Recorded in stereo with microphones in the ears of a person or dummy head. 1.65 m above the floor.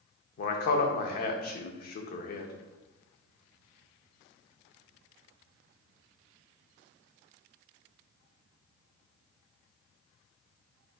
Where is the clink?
I don't hear a clink.